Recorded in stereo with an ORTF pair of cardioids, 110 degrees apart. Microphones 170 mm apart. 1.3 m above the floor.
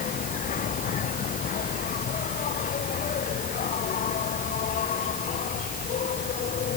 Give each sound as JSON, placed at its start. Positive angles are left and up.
{"t": 0.0, "sound": "an insect", "azimuth_deg": 55}